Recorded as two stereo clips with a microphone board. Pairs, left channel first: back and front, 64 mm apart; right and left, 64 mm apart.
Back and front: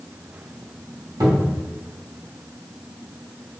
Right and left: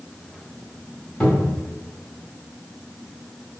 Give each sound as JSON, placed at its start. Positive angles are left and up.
{"t": 1.2, "sound": "a cupboard door", "azimuth_deg": -15, "distance_m": 0.9}